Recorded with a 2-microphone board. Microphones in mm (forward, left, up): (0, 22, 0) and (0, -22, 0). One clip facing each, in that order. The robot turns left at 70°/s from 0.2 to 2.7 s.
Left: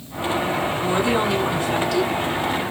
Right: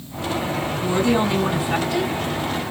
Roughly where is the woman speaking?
Ahead left.